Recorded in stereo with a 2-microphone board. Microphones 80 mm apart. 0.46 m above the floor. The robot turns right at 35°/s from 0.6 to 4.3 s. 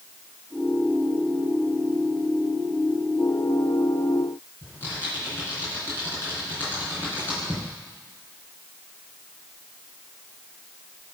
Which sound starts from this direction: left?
Typing on a keyboard, at 4.6 s.